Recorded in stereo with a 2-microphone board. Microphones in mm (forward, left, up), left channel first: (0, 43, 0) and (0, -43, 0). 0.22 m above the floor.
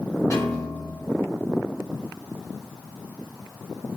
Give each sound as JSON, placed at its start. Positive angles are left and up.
{"t": 0.3, "sound": "a piano", "side_deg": 45, "distance_m": 1.6}